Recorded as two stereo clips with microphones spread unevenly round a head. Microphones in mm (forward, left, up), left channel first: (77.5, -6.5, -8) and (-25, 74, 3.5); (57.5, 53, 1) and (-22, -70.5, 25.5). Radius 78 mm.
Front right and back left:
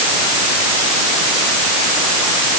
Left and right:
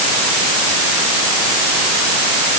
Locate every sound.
Only background noise.